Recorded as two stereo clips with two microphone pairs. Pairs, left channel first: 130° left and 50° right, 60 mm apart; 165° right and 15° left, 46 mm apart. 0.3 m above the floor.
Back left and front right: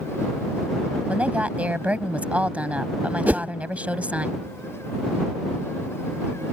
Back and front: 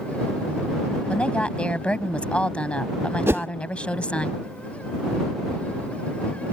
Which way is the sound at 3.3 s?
10° left.